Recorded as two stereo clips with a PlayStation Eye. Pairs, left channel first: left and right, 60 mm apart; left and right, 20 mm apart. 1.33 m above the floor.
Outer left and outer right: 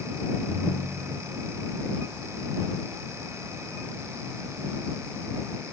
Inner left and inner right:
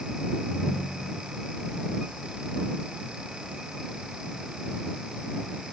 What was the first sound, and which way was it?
A ringtone, 70° right (ahead or behind).